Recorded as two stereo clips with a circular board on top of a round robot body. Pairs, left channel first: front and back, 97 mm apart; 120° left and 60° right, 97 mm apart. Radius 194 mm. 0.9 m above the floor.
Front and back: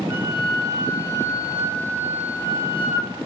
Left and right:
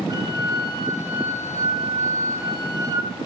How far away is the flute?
About 5 m.